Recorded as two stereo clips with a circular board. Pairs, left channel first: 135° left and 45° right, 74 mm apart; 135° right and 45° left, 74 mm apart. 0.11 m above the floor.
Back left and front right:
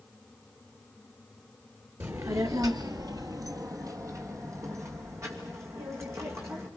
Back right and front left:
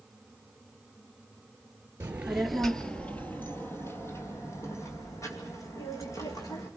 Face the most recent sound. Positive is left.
turn(degrees=-95)